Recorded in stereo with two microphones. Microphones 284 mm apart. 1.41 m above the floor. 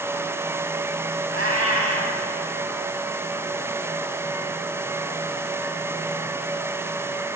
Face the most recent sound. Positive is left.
turn(degrees=-50)  # may be behind; listen again after turning